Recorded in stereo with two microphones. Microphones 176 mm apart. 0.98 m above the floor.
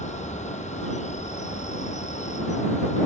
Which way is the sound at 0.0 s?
40° left (ahead or behind).